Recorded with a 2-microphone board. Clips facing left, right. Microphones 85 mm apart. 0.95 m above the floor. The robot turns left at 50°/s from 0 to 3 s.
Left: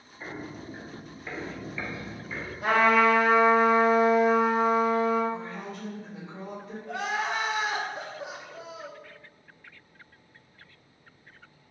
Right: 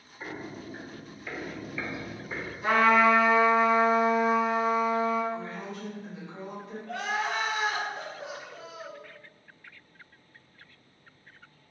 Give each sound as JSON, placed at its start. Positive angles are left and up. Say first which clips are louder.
{"t": 0.2, "sound": "footsteps", "louder": "even", "side_deg": -5, "distance_m": 1.3}
{"t": 2.6, "sound": "a trumpet", "louder": "even", "side_deg": 75, "distance_m": 1.8}
{"t": 5.3, "sound": "a woman speaking", "louder": "even", "side_deg": 40, "distance_m": 2.0}
{"t": 6.9, "sound": "crying", "louder": "left 1 dB", "side_deg": 20, "distance_m": 0.6}